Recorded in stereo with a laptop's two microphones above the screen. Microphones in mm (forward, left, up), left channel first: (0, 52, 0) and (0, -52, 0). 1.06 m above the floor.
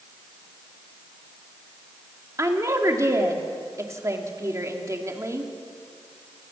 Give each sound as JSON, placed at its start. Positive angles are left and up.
{"t": 2.4, "sound": "a woman speaking", "side_deg": -30, "distance_m": 2.5}